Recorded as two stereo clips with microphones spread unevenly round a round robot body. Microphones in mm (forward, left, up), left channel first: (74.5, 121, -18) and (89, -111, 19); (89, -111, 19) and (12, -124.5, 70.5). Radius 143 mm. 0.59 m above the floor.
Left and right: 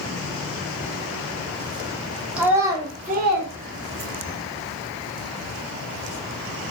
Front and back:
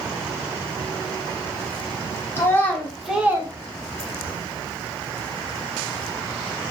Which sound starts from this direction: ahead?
A child speaking, at 2.4 s.